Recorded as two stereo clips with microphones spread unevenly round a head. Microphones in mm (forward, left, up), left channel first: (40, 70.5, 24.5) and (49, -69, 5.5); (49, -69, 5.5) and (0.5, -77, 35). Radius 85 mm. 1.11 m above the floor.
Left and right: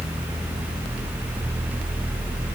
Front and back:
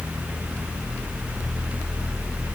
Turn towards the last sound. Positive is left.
No sound to turn to.